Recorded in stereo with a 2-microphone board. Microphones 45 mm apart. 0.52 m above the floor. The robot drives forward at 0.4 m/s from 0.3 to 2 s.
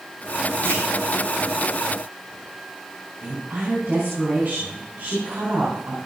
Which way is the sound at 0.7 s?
70° right (ahead or behind).